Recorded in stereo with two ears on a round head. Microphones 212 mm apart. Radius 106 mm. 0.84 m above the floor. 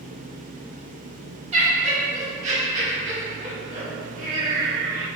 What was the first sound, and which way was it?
Laughter, 30° right (ahead or behind).